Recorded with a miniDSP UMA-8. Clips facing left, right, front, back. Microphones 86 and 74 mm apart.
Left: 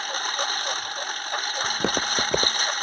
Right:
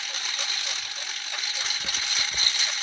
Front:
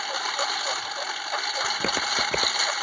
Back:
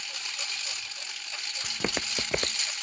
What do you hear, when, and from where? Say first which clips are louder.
0.0 s a lawn mower: left 8 dB, front 13 dB; 40° left
1.6 s footsteps: left 10 dB, front 1 dB; 90° left